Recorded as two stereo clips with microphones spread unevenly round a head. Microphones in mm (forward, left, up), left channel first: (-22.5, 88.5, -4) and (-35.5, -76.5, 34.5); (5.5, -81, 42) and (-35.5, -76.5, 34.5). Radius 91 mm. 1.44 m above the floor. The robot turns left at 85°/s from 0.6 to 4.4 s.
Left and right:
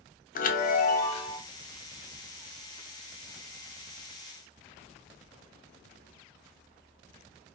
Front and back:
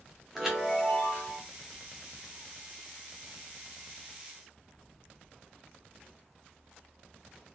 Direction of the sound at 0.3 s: 95° left.